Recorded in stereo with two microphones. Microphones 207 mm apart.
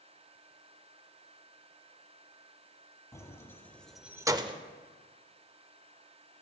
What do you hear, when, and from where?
3.1 s keys jangling: 15° left (ahead or behind), 1.5 m; by 4.6 s 25° right (ahead or behind), 0.8 m